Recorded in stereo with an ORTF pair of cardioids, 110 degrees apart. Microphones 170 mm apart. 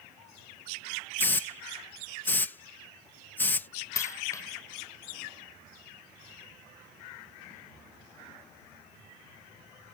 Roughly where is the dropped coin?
Ahead.